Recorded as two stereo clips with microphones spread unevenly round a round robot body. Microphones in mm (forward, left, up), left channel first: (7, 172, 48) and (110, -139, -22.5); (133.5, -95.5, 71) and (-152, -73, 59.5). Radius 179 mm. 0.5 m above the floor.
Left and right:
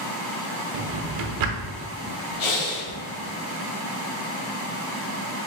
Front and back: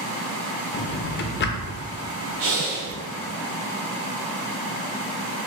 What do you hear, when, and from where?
0.7 s a drawer: 60° right, 0.5 m
2.4 s breathing: 135° left, 0.6 m